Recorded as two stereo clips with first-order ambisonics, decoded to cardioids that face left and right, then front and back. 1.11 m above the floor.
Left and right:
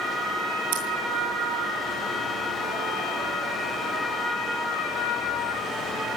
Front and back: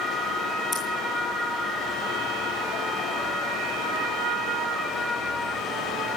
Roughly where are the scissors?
Right.